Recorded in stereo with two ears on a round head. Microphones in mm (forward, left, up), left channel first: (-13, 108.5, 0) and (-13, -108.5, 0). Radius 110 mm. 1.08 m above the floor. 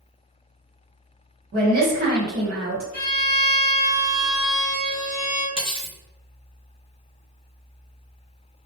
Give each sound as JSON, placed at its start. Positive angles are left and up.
{"t": 1.5, "sound": "a woman speaking", "side_deg": -40, "distance_m": 1.0}
{"t": 2.9, "sound": "a violin", "side_deg": 30, "distance_m": 0.9}
{"t": 5.6, "sound": "cutlery clinking", "side_deg": -20, "distance_m": 0.7}